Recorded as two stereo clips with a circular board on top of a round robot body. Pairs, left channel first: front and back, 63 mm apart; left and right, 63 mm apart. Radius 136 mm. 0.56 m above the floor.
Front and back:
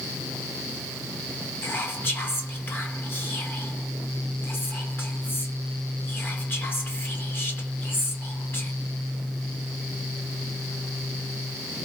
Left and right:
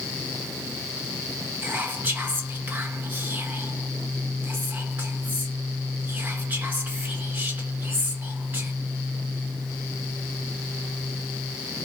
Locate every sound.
1.6 s whispering: 45° right, 1.5 m